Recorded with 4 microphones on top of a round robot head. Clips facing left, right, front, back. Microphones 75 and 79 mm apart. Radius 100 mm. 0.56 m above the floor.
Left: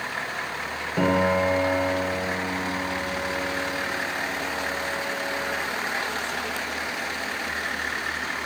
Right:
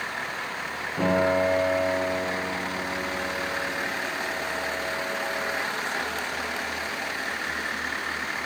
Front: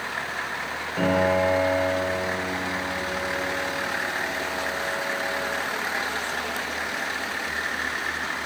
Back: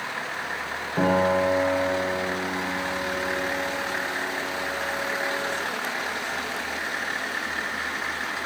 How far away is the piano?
About 2 m.